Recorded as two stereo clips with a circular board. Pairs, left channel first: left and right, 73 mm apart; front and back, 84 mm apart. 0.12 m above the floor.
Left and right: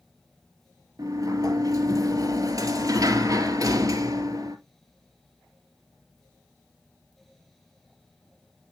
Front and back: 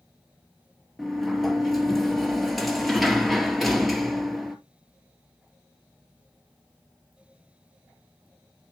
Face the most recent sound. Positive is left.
turn(degrees=-90)